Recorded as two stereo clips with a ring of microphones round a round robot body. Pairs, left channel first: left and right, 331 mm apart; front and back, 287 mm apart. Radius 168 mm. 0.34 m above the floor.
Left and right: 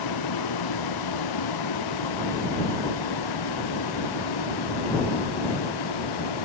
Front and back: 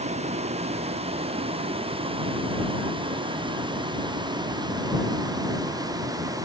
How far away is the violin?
No violin in this recording.